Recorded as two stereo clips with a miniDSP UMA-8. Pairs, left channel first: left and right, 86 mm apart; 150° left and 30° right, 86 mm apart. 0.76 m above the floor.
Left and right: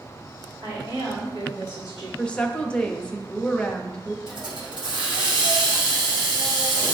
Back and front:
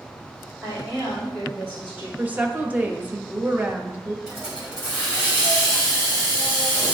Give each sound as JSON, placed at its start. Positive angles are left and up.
{"t": 0.6, "sound": "a woman speaking", "azimuth_deg": -115, "distance_m": 3.0}
{"t": 2.2, "sound": "a woman speaking", "azimuth_deg": 25, "distance_m": 0.7}
{"t": 4.3, "sound": "a hiss", "azimuth_deg": -110, "distance_m": 3.0}